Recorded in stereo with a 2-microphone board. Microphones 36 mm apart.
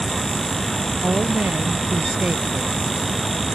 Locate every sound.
1.0 s a woman speaking: 50° right (ahead or behind); by 2.8 s 40° right (ahead or behind)